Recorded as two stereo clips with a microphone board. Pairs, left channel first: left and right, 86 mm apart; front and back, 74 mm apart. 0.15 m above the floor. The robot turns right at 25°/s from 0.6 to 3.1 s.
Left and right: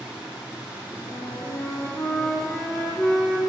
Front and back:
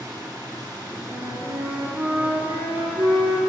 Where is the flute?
130° left, 0.9 m; by 3.4 s straight behind, 0.9 m.